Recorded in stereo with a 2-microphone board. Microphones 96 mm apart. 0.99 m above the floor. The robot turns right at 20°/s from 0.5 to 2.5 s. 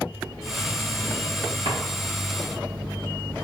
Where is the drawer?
70° right (ahead or behind), 1.4 m; by 1.8 s 75° right (ahead or behind), 1.4 m.